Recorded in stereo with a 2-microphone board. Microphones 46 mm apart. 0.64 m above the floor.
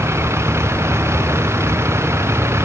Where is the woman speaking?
No woman speaking in this recording.